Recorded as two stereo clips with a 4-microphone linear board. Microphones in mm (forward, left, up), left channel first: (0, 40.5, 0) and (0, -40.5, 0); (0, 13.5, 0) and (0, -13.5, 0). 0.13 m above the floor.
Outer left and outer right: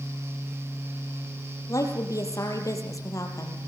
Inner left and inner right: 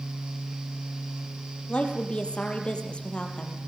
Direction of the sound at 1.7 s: 45° left (ahead or behind).